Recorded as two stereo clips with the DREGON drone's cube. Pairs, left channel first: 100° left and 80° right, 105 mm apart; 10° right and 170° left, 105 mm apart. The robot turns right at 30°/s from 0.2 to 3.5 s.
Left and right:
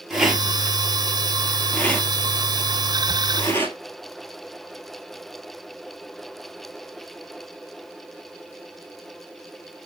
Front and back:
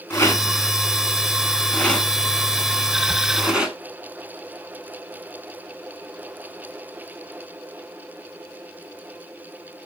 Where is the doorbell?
No doorbell in this recording.